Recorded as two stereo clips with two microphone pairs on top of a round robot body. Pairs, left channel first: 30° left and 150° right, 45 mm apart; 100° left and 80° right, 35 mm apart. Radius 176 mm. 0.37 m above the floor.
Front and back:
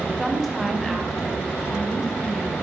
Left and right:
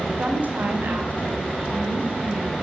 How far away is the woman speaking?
About 2.5 m.